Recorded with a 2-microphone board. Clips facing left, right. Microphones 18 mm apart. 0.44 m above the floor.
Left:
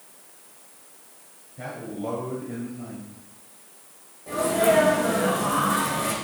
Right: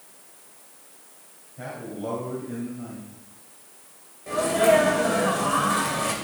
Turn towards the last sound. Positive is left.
turn(degrees=-25)  # may be behind; listen again after turning